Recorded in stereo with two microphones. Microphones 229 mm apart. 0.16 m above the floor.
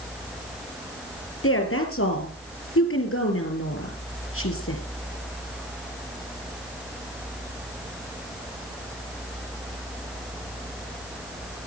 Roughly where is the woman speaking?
Left.